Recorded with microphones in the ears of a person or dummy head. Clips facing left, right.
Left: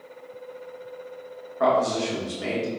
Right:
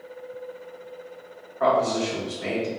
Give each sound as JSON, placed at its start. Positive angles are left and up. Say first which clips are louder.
{"t": 1.6, "sound": "a man speaking", "louder": "even", "side_deg": 55, "distance_m": 1.5}